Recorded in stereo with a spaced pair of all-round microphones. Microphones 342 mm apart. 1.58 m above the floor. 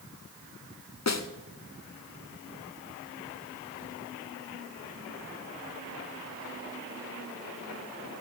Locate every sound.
1.1 s a snare drum: 50° left (ahead or behind), 0.8 m